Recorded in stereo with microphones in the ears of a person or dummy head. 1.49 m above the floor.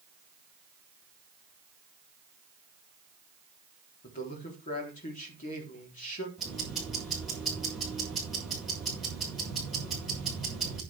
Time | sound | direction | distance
4.0 | a man speaking | 45° left (ahead or behind) | 4 m
6.4 | ticking | centre (ahead or behind) | 6 m